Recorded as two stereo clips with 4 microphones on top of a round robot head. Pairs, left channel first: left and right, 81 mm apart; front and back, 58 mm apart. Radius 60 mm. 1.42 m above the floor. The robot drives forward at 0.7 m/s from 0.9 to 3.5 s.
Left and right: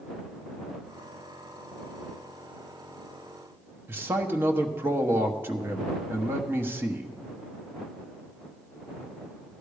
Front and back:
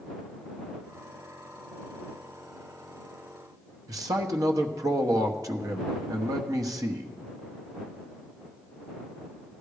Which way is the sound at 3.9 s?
155° right.